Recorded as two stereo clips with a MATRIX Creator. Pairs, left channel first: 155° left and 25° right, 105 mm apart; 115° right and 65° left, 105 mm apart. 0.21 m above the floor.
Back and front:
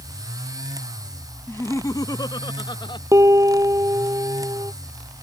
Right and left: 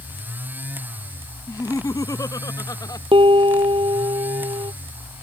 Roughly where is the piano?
Ahead left.